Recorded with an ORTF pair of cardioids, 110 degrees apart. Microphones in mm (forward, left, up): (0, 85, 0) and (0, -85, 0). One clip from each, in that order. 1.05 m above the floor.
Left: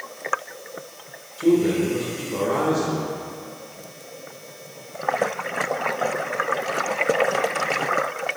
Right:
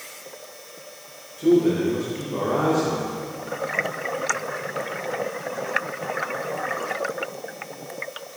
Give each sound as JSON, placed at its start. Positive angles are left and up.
{"t": 1.4, "sound": "a man speaking", "azimuth_deg": 25, "distance_m": 3.0}